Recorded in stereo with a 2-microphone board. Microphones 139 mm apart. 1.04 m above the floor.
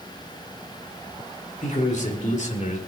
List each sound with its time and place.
1.6 s a man speaking: 60° left (ahead or behind), 4 m